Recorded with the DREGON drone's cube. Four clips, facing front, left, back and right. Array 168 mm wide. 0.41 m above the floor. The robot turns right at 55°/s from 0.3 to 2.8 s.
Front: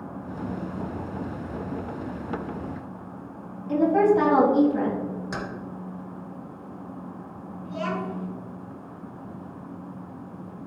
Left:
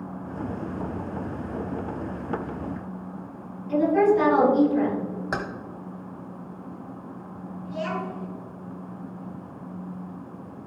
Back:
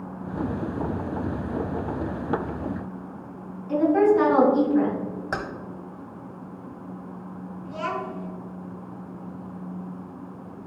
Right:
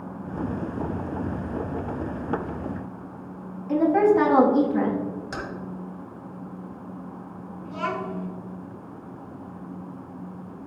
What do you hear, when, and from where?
3.7 s a woman speaking: 60° right, 4 m
5.3 s keys jangling: 130° left, 1.2 m
7.7 s a child speaking: 85° right, 3.5 m